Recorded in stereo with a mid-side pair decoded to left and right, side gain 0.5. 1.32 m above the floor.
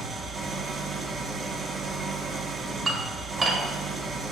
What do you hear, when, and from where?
0.0 s an engine running: 35° right, 1.0 m
2.9 s dishes clattering: 35° right, 1.6 m